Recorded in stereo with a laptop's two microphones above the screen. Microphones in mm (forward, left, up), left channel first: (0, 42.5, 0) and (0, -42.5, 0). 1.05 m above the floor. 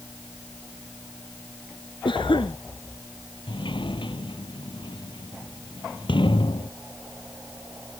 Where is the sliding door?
75° left (ahead or behind).